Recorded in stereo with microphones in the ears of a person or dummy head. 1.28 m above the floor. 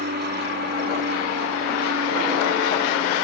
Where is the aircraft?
50° right (ahead or behind); by 3.2 s 60° right (ahead or behind).